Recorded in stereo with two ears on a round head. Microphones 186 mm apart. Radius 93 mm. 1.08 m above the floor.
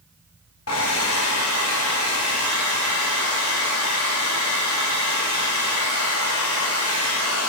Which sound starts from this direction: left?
A hair dryer, at 0.7 s.